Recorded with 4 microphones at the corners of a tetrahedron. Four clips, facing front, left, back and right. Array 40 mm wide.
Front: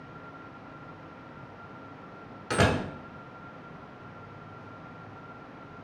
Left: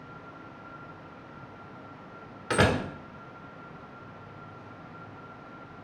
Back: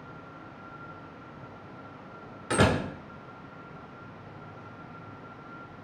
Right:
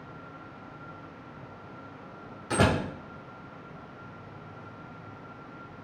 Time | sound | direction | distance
2.5 | a door slam | 105° left | 1.0 m